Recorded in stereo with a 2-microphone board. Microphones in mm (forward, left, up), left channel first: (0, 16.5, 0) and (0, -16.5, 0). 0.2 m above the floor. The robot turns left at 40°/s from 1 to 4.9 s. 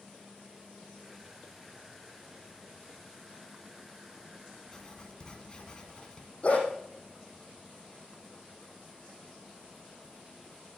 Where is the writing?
20° left (ahead or behind), 2 m; by 6.3 s 25° left (ahead or behind), 2 m.